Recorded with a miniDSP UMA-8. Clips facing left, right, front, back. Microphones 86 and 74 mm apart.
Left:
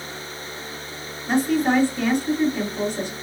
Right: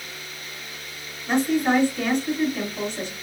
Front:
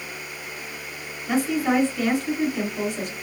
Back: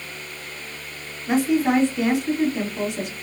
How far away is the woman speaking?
About 1.3 m.